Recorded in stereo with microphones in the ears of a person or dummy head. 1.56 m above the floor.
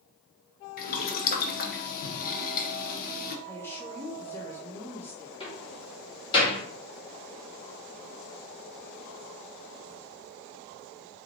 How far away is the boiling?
About 0.8 m.